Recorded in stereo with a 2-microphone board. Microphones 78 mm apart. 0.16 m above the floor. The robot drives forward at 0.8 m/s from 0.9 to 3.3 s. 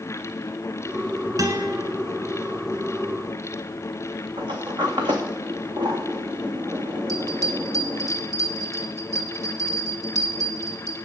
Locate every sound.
1.4 s a guitar: 50° right (ahead or behind), 1.4 m; by 1.8 s 45° right (ahead or behind), 1.5 m
4.4 s a sliding door: 80° right, 2 m
7.1 s a bell: 50° right (ahead or behind), 1.3 m